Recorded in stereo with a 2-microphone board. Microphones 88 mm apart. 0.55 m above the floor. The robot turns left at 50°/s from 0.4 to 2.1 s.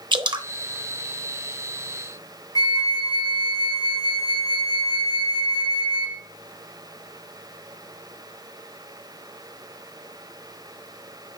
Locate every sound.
0.1 s dripping: 65° right (ahead or behind), 0.8 m; by 0.5 s 70° right (ahead or behind), 0.8 m
2.5 s a flute: 55° left (ahead or behind), 0.8 m